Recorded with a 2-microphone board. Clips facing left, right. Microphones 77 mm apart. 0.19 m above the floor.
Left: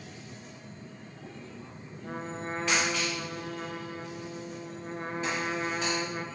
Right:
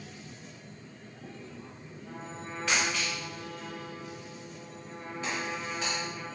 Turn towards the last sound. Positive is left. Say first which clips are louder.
# left 6 dB
turn(degrees=65)  # may be behind; listen again after turning